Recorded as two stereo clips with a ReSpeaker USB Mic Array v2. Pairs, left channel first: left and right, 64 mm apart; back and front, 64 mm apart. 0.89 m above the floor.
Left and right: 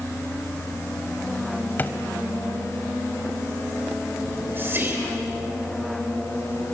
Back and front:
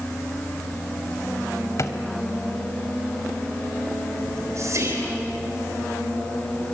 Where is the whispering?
35° right, 3.5 m.